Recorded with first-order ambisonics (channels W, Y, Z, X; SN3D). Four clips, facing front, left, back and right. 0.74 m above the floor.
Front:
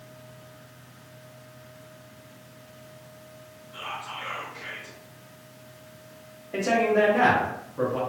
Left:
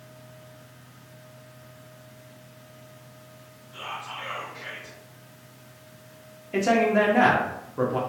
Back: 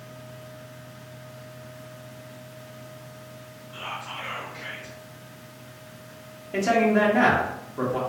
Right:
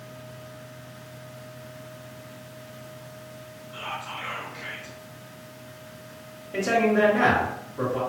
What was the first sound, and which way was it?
Whispering, 160° right.